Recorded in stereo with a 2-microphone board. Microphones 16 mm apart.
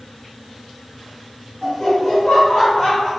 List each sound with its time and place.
1.6 s laughter: 25° left (ahead or behind), 1.7 m; by 3.1 s 50° left (ahead or behind), 2.5 m